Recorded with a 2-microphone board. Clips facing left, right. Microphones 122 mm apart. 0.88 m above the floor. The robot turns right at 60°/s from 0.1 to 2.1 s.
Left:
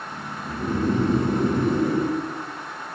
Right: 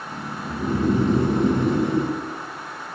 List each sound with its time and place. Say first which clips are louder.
0.5 s snoring: right 2 dB; 5° right (ahead or behind), 0.9 m; by 2.2 s 20° right (ahead or behind), 0.9 m